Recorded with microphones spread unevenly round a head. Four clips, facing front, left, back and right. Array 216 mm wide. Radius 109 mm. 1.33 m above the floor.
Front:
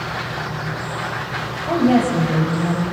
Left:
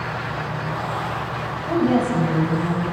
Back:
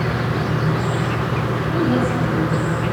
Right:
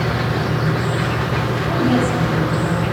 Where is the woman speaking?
Straight ahead, 9.5 m.